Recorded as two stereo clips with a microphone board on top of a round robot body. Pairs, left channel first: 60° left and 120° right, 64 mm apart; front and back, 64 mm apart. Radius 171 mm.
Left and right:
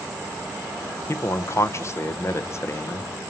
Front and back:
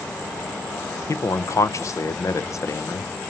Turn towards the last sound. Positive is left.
turn(degrees=25)